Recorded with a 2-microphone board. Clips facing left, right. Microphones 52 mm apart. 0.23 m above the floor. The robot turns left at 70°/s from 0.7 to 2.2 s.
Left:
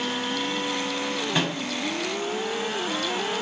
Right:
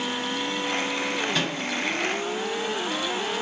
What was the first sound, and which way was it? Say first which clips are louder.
A microwave: left 1 dB; 15° left (ahead or behind).